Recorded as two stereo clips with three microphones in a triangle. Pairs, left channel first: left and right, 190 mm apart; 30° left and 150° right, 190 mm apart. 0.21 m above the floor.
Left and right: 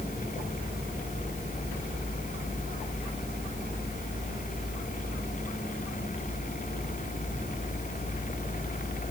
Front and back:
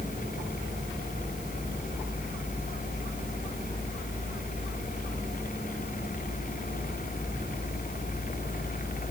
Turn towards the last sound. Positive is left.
No sound to turn to.